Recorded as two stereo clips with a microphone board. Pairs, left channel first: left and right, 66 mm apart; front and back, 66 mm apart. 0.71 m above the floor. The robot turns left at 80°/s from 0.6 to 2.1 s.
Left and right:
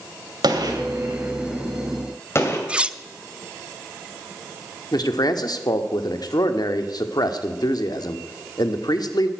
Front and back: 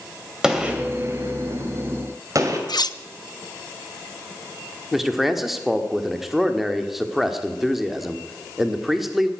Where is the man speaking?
95° left, 1.3 m.